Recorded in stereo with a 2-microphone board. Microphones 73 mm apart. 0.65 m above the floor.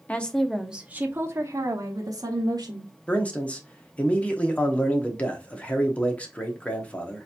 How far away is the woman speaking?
About 0.7 m.